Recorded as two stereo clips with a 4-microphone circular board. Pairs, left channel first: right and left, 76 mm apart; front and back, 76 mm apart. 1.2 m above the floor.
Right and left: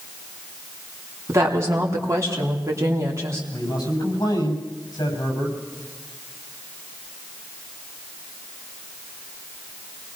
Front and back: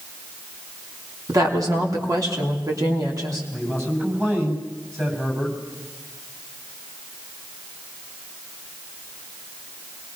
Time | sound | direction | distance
1.3 | a woman speaking | 140° left | 3 m
3.5 | a man speaking | 120° right | 6.5 m